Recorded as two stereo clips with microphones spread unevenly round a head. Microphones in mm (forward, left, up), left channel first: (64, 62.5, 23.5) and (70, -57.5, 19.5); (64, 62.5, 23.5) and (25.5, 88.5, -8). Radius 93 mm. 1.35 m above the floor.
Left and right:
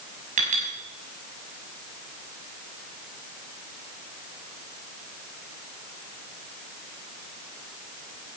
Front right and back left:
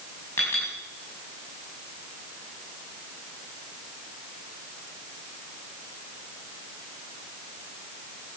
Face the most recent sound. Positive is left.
turn(degrees=-80)